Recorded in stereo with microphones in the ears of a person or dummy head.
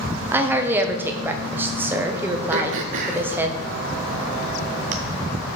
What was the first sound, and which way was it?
A woman speaking, 10° right (ahead or behind).